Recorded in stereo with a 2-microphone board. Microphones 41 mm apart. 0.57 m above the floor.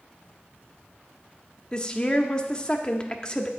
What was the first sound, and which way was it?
A woman speaking, 20° left (ahead or behind).